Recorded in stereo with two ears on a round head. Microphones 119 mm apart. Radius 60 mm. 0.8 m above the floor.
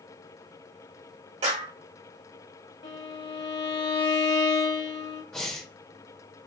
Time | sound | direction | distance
1.4 | a clap | 50° right (ahead or behind) | 1.5 m
2.8 | a violin | 30° left (ahead or behind) | 0.9 m
5.3 | breathing | 5° left (ahead or behind) | 1.2 m